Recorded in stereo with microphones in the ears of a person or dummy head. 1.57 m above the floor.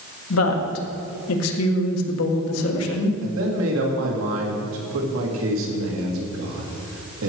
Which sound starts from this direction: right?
A man speaking, at 3.2 s.